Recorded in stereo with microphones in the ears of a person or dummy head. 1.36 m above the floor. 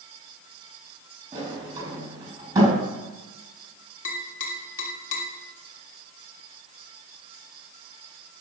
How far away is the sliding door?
About 4.5 m.